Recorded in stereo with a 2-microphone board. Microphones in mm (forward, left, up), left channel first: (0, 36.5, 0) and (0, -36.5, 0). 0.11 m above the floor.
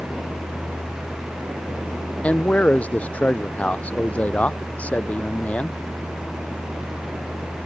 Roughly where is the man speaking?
Centre.